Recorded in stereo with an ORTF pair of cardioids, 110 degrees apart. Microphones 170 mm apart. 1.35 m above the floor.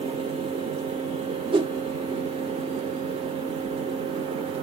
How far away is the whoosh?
About 0.7 m.